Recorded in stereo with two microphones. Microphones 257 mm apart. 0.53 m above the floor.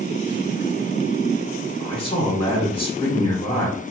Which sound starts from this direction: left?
A man speaking, at 1.8 s.